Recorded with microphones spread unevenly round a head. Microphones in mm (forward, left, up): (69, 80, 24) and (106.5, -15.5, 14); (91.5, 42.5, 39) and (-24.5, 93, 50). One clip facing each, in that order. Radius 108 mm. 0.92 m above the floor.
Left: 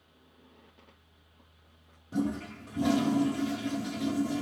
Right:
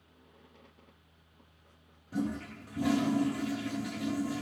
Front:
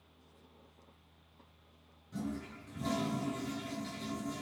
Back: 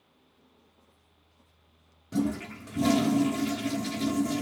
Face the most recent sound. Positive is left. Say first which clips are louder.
# left 3 dB, back 11 dB
turn(degrees=-170)